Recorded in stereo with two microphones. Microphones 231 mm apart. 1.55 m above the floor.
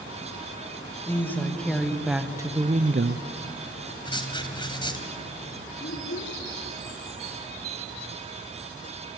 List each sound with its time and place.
1.1 s a woman speaking: 10° left (ahead or behind), 3 m; by 3.2 s 75° right (ahead or behind), 0.8 m
4.0 s writing: 20° left (ahead or behind), 2.5 m
5.8 s a child speaking: 85° left, 3.5 m